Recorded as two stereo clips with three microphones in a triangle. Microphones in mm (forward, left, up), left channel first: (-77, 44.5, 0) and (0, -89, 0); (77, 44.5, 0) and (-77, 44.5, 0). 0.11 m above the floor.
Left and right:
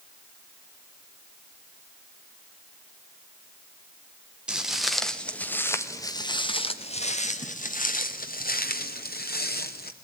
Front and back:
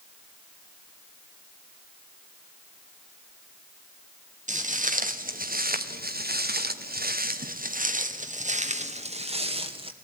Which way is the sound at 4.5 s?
145° right.